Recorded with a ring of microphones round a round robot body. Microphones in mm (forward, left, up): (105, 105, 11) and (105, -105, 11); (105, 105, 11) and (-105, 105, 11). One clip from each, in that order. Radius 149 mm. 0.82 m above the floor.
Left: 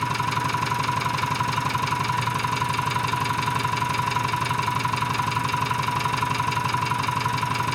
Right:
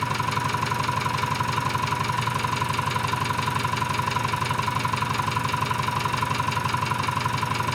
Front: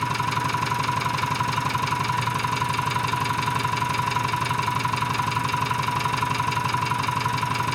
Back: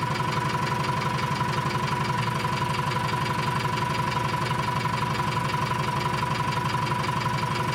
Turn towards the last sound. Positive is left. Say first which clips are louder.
# left 1 dB, front 2 dB
turn(degrees=15)